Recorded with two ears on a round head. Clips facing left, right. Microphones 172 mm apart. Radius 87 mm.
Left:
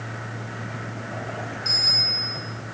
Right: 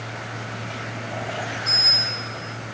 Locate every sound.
1.6 s a bicycle bell: 30° left (ahead or behind), 7 m